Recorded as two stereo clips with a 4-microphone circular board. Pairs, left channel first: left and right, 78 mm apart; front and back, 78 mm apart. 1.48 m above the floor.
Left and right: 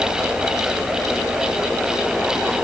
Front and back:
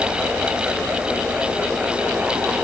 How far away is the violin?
I don't hear a violin.